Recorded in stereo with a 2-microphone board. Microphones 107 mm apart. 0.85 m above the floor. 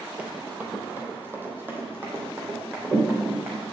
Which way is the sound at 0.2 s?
15° right (ahead or behind).